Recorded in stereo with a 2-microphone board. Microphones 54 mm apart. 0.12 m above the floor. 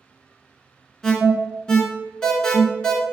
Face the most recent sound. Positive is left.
turn(degrees=15)  # may be behind; listen again after turning